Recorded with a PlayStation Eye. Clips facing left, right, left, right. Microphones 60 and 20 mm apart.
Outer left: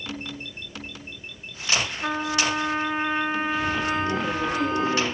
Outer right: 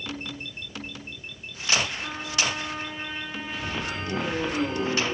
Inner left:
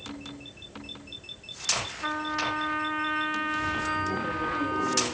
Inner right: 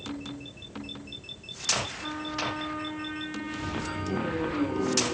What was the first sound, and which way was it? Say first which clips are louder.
A trumpet: outer left 5 dB, inner left 3 dB; 50° left (ahead or behind).